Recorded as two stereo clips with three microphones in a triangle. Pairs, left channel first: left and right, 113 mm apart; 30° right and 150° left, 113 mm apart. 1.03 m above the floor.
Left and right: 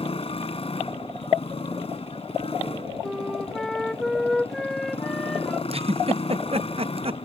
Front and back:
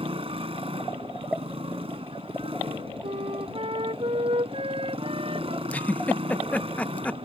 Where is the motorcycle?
120° left.